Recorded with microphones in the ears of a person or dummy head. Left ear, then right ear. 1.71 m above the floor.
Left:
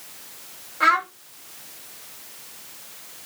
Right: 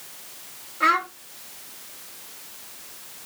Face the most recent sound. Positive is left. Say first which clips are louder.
# left 2 dB
turn(degrees=30)  # may be behind; listen again after turning